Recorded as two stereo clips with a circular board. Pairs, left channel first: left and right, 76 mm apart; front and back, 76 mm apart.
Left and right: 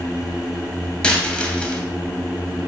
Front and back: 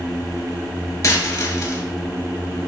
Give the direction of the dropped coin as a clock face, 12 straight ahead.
11 o'clock.